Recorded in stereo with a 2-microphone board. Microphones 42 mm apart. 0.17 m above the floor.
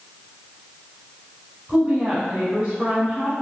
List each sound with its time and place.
1.7 s a woman speaking: 30° right (ahead or behind), 1.2 m